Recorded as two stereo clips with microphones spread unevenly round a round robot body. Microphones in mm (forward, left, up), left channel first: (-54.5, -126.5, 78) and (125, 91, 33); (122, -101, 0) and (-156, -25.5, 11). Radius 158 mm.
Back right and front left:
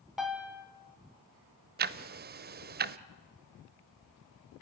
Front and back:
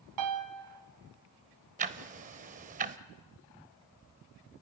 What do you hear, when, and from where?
0.2 s a piano: 135° left, 1.9 m
1.8 s ticking: 100° left, 0.6 m